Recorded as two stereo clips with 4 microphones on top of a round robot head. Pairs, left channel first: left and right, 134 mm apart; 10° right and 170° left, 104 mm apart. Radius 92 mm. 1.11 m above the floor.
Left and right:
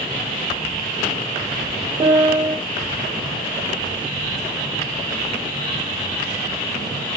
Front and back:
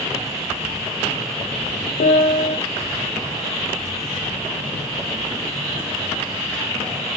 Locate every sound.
2.0 s a piano: 25° right, 0.6 m